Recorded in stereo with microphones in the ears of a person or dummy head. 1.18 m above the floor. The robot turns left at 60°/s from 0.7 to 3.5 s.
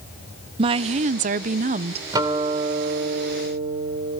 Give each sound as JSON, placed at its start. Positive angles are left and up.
{"t": 0.6, "sound": "a woman speaking", "azimuth_deg": -50, "distance_m": 0.5}
{"t": 2.1, "sound": "a guitar", "azimuth_deg": -20, "distance_m": 2.5}